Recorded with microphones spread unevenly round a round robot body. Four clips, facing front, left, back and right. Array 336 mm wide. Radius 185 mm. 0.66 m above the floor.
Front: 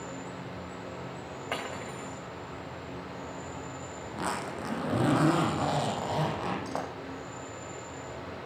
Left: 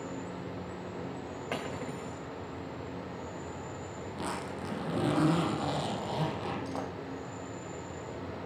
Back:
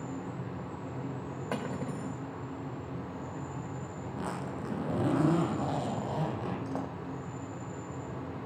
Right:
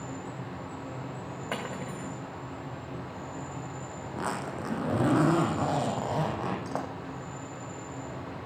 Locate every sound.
0.0 s an insect: 125° right, 4.5 m
1.5 s cutlery clinking: 175° right, 1.1 m
4.0 s a zipper: 60° right, 4.5 m